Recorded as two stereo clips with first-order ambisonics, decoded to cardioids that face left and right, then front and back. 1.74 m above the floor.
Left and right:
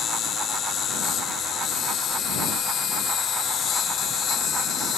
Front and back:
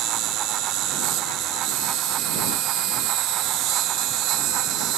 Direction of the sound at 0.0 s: 145° left.